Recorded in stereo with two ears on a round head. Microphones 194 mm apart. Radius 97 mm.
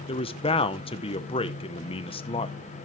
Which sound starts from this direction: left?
A man speaking, at 0.1 s.